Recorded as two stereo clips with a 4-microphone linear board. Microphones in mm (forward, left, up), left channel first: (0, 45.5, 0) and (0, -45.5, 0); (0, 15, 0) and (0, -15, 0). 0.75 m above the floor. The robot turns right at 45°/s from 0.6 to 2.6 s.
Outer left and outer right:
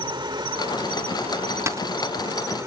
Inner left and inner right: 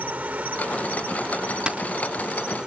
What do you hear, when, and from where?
0.0 s an insect: 125° right; by 2.7 s 35° right
1.7 s a dropped coin: 30° right (ahead or behind); by 1.9 s 40° right (ahead or behind)